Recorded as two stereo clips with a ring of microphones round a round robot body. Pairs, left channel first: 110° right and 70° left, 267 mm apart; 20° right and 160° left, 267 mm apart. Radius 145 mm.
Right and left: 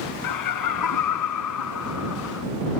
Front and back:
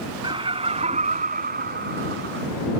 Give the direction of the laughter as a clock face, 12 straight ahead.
4 o'clock.